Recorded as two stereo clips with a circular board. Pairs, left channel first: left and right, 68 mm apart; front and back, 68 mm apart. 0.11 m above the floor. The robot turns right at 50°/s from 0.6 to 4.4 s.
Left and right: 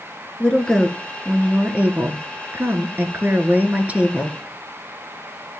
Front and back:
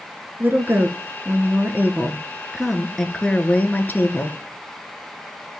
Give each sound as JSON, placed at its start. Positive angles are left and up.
{"t": 0.4, "sound": "a woman speaking", "azimuth_deg": 155, "distance_m": 1.5}